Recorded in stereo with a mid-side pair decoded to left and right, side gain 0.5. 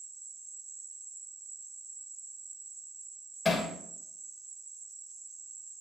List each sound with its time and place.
0.0 s an insect: 25° right, 1.0 m
3.5 s hammering: 20° left, 3 m